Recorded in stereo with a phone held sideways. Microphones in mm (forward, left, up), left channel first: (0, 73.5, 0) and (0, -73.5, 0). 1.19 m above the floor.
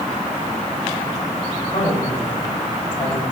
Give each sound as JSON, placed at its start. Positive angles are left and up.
{"t": 1.7, "sound": "a man speaking", "side_deg": 45, "distance_m": 7.5}